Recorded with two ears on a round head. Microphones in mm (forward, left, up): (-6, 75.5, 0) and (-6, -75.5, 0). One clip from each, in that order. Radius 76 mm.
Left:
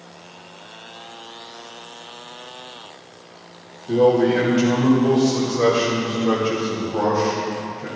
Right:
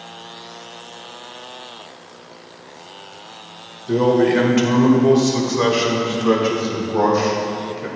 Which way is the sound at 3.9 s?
45° right (ahead or behind).